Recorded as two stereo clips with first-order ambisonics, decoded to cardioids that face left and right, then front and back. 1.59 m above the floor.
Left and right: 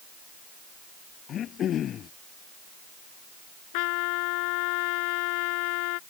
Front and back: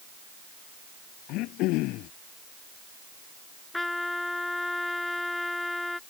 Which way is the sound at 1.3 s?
35° left.